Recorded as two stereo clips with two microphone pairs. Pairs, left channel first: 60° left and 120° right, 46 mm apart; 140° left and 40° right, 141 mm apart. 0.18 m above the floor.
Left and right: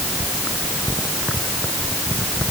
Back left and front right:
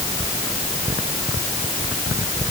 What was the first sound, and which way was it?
Only background noise.